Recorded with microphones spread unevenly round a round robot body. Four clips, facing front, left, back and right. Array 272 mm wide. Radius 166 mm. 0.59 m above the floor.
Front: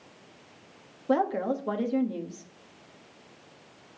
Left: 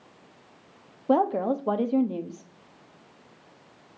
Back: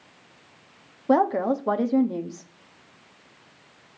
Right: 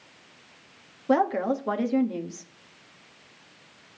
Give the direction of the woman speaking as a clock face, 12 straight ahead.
6 o'clock.